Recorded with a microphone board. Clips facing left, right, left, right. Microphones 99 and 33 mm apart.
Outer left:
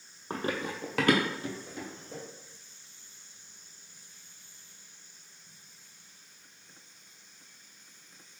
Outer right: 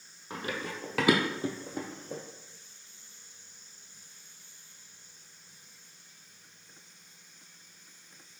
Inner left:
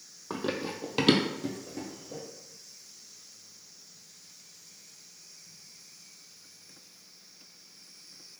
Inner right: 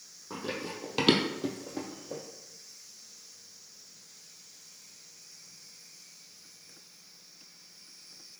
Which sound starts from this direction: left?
Running footsteps, at 0.3 s.